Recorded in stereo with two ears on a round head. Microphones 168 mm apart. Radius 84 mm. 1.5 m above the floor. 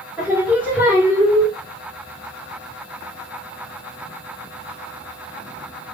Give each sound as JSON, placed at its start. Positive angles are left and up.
{"t": 0.2, "sound": "singing", "side_deg": -10, "distance_m": 1.0}